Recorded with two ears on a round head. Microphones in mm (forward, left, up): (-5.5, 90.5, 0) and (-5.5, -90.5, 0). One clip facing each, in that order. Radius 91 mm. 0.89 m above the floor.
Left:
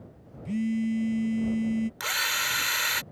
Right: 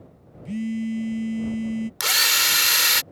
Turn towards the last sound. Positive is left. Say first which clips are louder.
# right 5 dB
turn(degrees=-55)  # may be behind; listen again after turning